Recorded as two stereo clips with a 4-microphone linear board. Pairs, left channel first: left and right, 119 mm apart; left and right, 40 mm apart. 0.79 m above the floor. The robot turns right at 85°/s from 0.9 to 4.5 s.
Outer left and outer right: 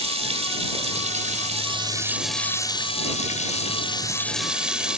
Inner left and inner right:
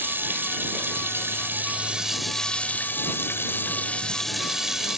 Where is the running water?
120° right; by 5.0 s 170° right.